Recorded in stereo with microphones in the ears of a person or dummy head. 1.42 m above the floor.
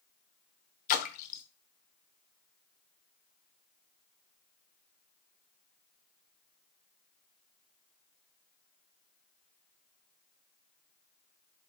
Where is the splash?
45° left (ahead or behind), 0.6 m.